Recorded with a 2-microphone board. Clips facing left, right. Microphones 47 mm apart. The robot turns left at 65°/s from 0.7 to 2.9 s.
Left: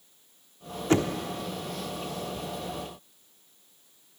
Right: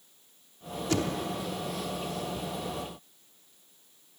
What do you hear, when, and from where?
0.9 s knocking: 35° left (ahead or behind), 0.8 m; by 1.2 s 30° left (ahead or behind), 0.8 m